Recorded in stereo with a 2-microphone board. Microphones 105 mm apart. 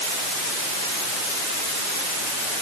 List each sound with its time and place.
Only background noise.